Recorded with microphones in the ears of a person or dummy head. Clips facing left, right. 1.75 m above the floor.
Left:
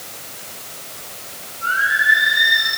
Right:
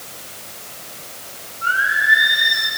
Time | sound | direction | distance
1.6 | singing | 50° right (ahead or behind) | 6 m